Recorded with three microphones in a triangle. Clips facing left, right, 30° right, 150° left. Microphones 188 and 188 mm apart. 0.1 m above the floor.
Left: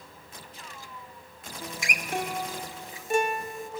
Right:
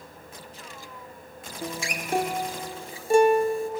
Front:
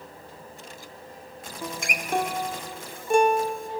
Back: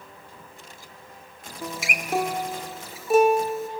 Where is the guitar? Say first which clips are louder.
Right 5 dB, back 1 dB; 125° right, 0.6 m.